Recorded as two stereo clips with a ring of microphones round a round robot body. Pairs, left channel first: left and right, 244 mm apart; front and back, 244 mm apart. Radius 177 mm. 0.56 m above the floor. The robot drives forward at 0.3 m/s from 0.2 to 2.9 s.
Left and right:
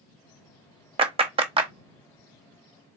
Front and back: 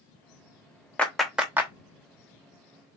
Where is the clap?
75° right, 0.9 m; by 1.7 s 115° right, 0.9 m.